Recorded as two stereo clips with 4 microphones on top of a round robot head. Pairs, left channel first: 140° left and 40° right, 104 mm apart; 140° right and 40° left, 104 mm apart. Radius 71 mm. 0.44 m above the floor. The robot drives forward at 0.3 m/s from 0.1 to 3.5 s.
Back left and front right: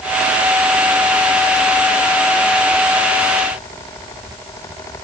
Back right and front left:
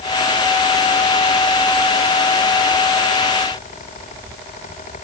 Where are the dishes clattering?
No dishes clattering in this recording.